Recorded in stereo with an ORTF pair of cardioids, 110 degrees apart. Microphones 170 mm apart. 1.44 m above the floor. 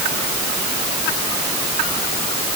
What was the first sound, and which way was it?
Only background noise.